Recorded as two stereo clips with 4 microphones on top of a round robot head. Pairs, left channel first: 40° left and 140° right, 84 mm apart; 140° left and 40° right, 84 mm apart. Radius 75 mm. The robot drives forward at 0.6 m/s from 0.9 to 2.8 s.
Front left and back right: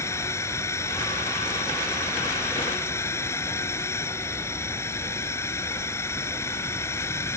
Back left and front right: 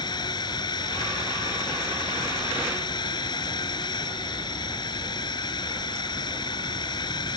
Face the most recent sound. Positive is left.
turn(degrees=100)